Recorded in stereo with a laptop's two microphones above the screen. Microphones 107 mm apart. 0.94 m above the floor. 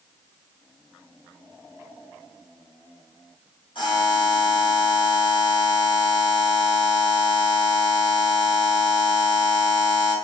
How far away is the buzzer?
About 1.2 m.